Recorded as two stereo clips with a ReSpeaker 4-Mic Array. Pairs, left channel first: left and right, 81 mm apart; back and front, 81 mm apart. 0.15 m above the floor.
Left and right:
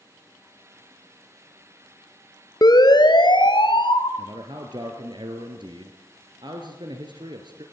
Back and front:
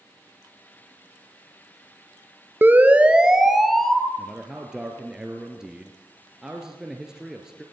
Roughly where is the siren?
Ahead left.